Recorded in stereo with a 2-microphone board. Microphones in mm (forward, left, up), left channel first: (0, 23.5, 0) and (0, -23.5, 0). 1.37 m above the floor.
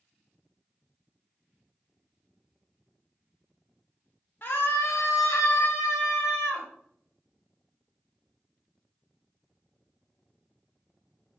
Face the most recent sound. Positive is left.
turn(degrees=70)  # may be behind; listen again after turning